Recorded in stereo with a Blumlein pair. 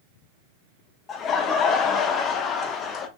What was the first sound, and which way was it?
Laughter, 25° left.